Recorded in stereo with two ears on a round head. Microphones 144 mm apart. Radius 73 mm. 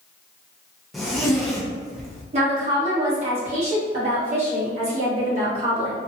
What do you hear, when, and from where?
0.9 s a zipper: centre (ahead or behind), 0.6 m
2.3 s a woman speaking: 40° right (ahead or behind), 1.6 m